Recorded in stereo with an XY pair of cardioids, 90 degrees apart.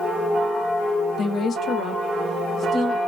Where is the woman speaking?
60° left, 0.5 m; by 3.0 s 65° left, 1.5 m.